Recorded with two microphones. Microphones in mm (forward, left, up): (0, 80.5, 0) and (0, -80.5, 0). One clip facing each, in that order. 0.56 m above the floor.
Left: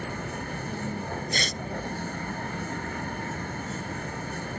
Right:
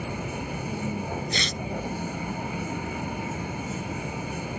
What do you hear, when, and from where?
0.0 s a vehicle: 10° right (ahead or behind)
1.3 s tearing paper: 50° left (ahead or behind)